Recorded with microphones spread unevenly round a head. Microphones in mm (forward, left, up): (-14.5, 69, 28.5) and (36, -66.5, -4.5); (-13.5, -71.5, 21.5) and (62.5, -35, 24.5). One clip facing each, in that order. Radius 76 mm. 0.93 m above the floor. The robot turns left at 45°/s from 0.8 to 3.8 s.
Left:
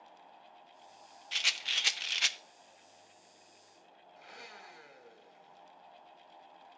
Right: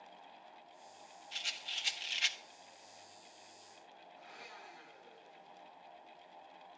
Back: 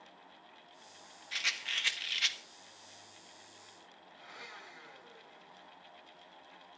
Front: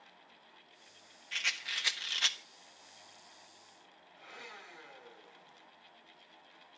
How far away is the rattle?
About 1.1 m.